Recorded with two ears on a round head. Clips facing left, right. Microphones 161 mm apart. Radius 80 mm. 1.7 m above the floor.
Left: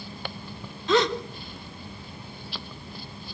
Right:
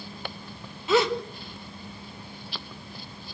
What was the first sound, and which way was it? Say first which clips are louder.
A gasp: even; 5° right (ahead or behind).